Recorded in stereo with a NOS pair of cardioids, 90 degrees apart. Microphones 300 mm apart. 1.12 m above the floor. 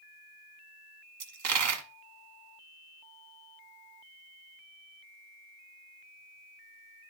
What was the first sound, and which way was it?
A dropped coin, 70° right.